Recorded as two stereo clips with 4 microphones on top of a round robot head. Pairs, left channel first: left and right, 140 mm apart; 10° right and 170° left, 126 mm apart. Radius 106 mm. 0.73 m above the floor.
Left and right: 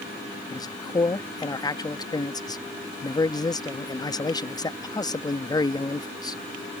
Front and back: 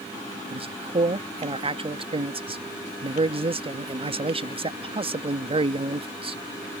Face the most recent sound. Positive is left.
turn(degrees=145)